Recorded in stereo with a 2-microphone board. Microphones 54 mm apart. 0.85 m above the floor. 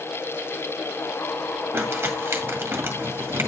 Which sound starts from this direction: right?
Crumpling, at 1.7 s.